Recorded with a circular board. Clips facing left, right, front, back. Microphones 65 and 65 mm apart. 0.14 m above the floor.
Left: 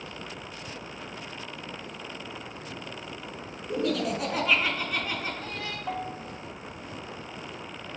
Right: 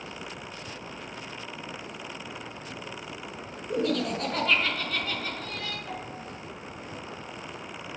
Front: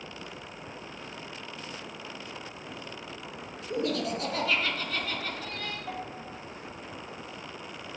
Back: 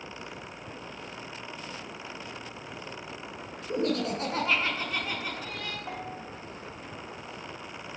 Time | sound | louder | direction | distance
3.7 | laughter | even, back 1 dB | straight behind | 2.0 m
5.9 | a bell | left 4 dB, even | 110° left | 3 m